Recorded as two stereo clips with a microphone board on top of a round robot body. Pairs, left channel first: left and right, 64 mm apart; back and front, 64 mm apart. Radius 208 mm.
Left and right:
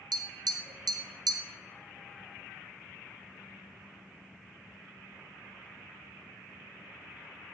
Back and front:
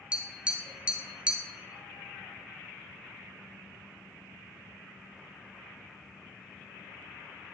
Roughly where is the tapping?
Right.